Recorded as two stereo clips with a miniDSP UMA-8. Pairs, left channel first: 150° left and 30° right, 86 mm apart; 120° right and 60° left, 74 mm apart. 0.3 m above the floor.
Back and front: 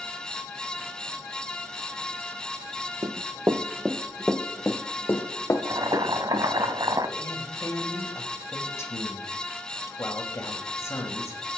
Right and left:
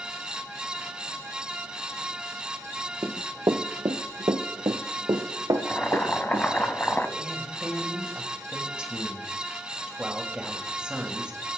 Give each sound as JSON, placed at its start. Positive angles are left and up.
{"t": 3.0, "sound": "running footsteps", "azimuth_deg": 10, "distance_m": 0.8}
{"t": 5.5, "sound": "boiling", "azimuth_deg": -55, "distance_m": 0.7}
{"t": 7.2, "sound": "a woman speaking", "azimuth_deg": 125, "distance_m": 1.5}